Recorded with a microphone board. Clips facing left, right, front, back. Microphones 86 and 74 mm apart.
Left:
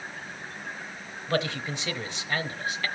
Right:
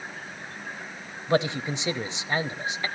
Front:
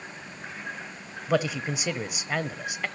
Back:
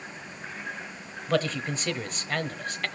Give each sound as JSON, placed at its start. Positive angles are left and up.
{"t": 1.3, "sound": "a man speaking", "azimuth_deg": -65, "distance_m": 1.0}